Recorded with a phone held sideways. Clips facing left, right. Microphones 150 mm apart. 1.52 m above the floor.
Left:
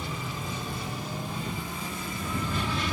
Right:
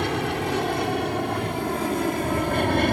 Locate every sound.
0.0 s an aircraft: 75° right (ahead or behind); by 2.9 s 60° right (ahead or behind)